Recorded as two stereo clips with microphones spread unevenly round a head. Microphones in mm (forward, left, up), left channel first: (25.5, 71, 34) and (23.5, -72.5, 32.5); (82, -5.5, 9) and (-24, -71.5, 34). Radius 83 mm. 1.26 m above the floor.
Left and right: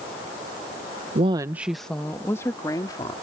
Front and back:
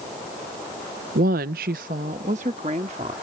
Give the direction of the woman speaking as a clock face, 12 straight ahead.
5 o'clock.